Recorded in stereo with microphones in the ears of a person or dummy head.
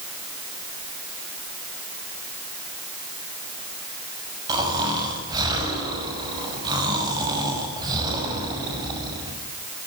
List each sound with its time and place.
4.5 s snoring: 25° right (ahead or behind), 6 m